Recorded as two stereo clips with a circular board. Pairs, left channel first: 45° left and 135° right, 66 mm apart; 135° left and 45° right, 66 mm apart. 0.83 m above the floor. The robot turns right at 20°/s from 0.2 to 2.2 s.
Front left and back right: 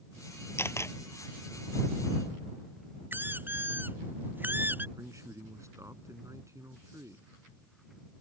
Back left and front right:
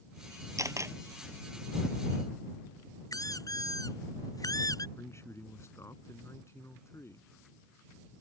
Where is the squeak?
165° left.